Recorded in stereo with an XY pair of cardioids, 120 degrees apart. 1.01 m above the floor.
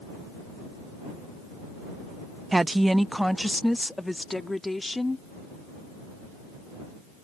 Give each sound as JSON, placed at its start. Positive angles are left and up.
{"t": 2.5, "sound": "a woman speaking", "azimuth_deg": -15}